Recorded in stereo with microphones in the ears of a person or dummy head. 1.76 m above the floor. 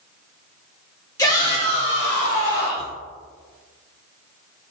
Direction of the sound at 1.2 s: 20° left (ahead or behind).